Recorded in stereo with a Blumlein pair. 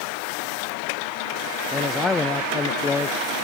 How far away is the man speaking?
About 0.5 m.